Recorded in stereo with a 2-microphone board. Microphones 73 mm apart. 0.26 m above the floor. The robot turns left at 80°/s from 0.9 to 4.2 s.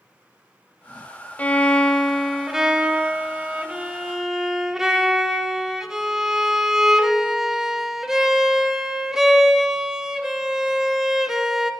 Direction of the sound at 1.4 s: 20° left (ahead or behind).